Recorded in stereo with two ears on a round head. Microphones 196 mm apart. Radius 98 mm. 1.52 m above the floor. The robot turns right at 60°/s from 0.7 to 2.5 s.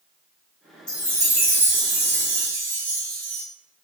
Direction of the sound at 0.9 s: 160° left.